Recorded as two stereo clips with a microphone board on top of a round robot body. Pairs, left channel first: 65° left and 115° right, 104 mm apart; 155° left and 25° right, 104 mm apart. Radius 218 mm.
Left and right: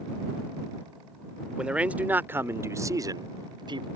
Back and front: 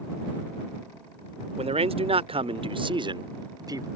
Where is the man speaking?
30° right; by 3.9 s 75° right.